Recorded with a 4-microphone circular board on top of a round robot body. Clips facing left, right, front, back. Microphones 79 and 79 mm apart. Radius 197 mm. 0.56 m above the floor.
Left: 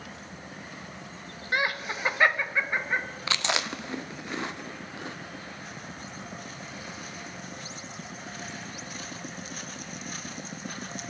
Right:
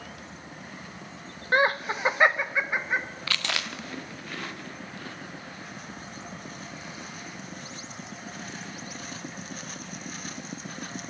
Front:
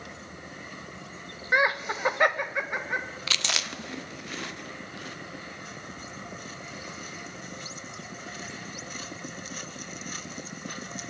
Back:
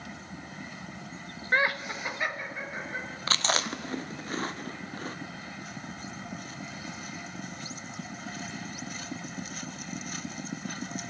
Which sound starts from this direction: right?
Laughter, at 1.5 s.